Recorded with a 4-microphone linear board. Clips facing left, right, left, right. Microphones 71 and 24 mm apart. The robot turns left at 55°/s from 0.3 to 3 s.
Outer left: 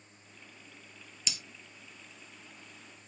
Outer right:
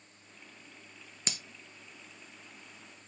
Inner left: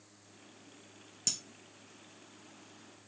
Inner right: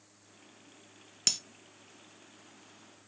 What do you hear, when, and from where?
1.3 s breaking glass: 40° right (ahead or behind), 0.6 m; by 1.4 s 45° right (ahead or behind), 0.6 m